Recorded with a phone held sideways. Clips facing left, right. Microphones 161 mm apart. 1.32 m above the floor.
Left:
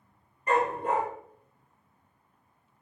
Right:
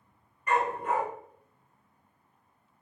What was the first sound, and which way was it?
A dog barking, 30° left (ahead or behind).